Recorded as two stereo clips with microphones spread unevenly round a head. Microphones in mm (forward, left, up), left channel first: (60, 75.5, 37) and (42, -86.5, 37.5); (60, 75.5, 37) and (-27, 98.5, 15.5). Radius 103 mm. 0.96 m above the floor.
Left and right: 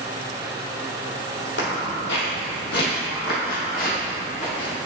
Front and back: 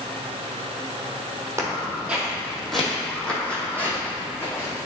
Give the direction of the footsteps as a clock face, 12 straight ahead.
9 o'clock.